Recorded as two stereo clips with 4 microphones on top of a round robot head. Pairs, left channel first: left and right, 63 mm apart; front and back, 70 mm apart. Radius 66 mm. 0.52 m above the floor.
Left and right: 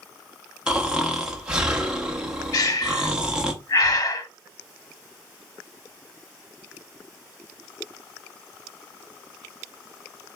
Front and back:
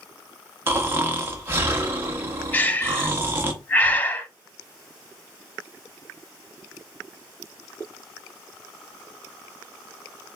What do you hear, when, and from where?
0.7 s snoring: 160° right, 1.1 m
2.5 s breathing: 65° left, 0.6 m